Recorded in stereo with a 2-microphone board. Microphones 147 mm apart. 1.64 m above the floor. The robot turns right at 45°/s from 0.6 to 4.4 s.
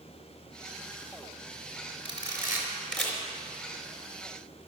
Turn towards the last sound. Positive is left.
turn(degrees=70)  # may be behind; listen again after turning